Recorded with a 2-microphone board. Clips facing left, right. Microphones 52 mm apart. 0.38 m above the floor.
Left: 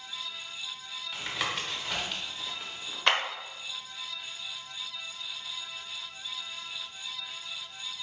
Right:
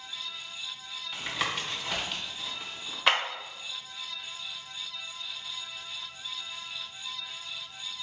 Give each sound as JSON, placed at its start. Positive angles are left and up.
{"t": 1.1, "sound": "tapping", "side_deg": 0, "distance_m": 1.0}
{"t": 3.1, "sound": "a clap", "side_deg": 0, "distance_m": 0.8}